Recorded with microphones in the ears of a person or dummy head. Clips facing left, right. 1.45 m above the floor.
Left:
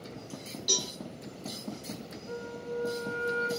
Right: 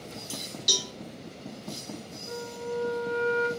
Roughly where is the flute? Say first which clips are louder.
Right 3 dB; right.